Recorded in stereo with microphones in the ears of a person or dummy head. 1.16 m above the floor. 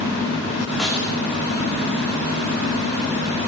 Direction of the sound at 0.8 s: Centre (ahead or behind).